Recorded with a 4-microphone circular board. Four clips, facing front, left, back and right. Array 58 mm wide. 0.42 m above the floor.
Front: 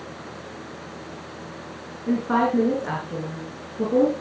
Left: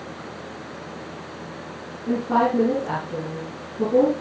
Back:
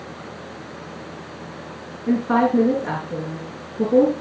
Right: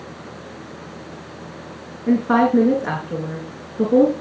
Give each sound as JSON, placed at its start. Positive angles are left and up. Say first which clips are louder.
{"t": 2.1, "sound": "a woman speaking", "louder": "right 4 dB, back 3 dB", "azimuth_deg": -100, "distance_m": 6.0}